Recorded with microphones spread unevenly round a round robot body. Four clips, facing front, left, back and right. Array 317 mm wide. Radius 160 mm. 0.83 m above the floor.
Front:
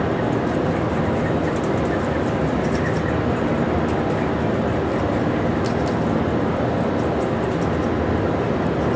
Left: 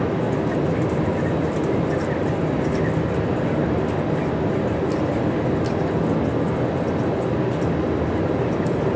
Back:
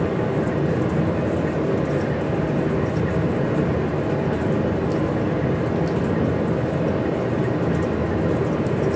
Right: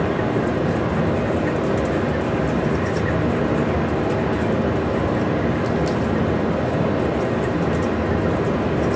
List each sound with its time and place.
0.0 s running water: 80° right, 1.3 m